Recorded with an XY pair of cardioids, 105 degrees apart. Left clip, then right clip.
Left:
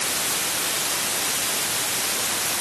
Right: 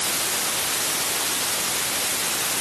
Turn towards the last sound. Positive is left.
No sound to turn to.